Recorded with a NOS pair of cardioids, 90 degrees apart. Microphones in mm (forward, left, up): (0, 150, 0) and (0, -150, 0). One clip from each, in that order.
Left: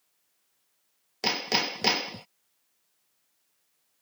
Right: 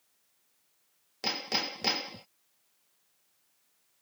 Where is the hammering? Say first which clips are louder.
Left 5 dB; 40° left.